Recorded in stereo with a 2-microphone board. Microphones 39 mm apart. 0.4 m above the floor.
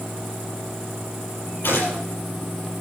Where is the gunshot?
70° left (ahead or behind), 7.5 m.